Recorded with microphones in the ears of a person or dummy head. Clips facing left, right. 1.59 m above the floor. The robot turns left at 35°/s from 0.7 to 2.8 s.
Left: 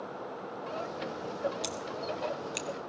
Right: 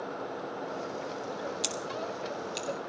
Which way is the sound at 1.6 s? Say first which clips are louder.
Right 1 dB; 5° right (ahead or behind).